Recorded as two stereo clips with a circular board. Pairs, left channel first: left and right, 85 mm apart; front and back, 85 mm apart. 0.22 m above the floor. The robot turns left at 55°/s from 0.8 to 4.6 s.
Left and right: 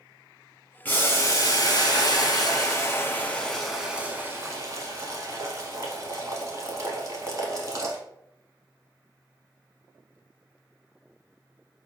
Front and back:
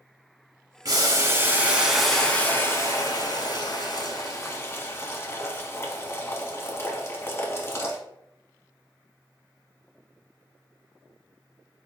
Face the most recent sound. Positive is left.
turn(degrees=-50)